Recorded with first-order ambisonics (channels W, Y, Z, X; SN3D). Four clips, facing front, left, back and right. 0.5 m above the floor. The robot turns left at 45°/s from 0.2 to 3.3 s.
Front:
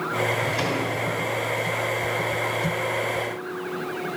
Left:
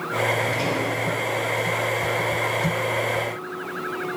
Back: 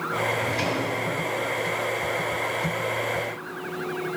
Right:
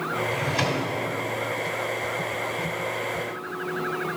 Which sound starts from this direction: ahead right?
A drawer, at 0.3 s.